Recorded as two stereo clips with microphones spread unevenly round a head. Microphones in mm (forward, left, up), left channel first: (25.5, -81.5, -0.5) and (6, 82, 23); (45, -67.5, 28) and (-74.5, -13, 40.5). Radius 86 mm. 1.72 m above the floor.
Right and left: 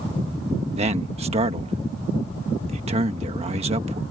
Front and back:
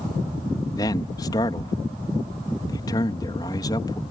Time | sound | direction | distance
0.8 | a man speaking | 45° left | ?